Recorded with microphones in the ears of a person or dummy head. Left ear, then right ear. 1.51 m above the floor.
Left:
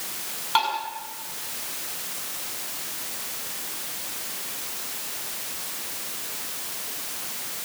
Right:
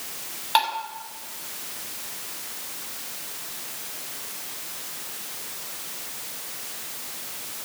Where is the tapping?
25° right (ahead or behind), 6 m.